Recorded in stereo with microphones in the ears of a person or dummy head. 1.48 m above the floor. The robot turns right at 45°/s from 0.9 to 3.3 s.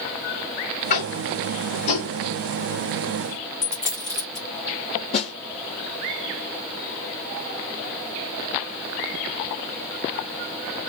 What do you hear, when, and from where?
0.9 s tapping: 45° left (ahead or behind), 1.9 m; by 2.1 s 80° left, 1.9 m
3.6 s a dropped coin: 40° left (ahead or behind), 2 m
5.1 s a snare drum: 40° left (ahead or behind), 0.9 m